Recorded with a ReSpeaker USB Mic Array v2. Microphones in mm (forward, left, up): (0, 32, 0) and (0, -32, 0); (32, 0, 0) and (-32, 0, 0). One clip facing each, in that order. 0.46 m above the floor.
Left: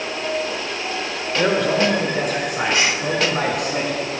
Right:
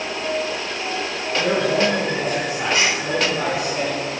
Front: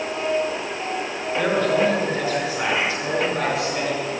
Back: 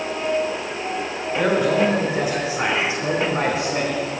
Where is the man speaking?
100° left, 5 m; by 4.1 s 125° left, 3.5 m.